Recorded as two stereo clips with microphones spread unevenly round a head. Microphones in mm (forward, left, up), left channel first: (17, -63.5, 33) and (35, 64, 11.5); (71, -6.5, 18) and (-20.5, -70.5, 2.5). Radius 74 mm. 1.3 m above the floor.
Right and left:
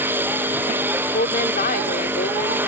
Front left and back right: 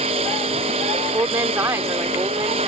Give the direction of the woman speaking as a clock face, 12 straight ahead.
3 o'clock.